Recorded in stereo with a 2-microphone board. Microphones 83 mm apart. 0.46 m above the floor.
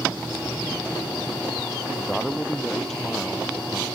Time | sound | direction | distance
2.0 | a man speaking | 5° left (ahead or behind) | ?